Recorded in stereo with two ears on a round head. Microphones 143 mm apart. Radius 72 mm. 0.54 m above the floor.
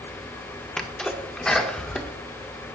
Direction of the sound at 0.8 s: 5° left (ahead or behind).